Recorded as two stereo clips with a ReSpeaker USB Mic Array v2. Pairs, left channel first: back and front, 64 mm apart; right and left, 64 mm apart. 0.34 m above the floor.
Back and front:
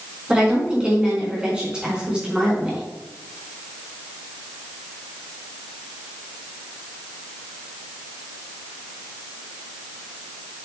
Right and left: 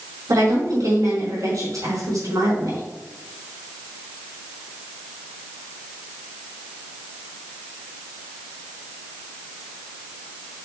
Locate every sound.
0.3 s a woman speaking: 75° left, 4 m